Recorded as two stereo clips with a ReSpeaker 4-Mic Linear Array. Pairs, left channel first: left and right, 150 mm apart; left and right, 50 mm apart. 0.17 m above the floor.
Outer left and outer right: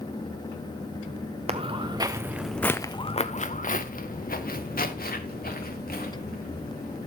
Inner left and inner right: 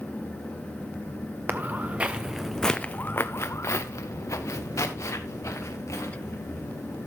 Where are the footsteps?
40° right (ahead or behind), 1.0 m; by 7.1 s 85° left, 3 m.